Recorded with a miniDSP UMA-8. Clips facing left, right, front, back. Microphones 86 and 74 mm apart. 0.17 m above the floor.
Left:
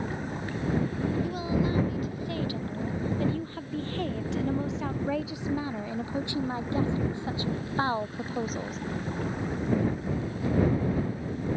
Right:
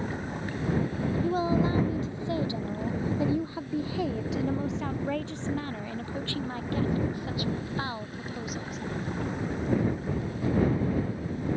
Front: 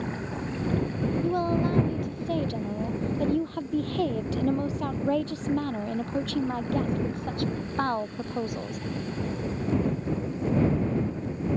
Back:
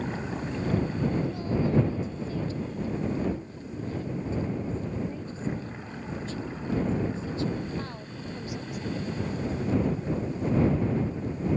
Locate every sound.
1.2 s a woman speaking: 35° right; by 8.8 s 40° left